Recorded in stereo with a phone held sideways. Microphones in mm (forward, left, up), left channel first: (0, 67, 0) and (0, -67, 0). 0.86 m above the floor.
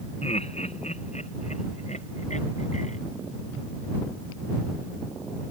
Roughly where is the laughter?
Left.